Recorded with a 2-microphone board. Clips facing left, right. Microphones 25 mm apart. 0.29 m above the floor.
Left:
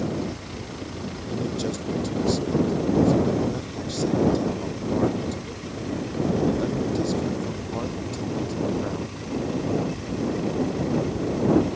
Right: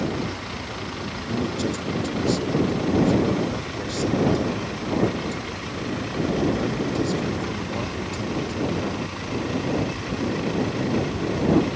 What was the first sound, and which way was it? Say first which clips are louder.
A vehicle: right 2 dB; 25° right (ahead or behind).